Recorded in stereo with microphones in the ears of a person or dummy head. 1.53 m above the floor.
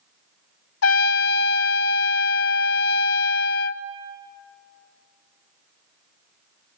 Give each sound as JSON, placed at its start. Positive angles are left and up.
{"t": 0.8, "sound": "a trumpet", "side_deg": 70, "distance_m": 0.6}